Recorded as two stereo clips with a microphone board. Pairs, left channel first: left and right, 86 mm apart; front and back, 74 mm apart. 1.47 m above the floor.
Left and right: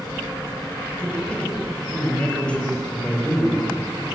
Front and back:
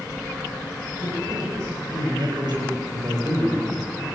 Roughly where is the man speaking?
Behind.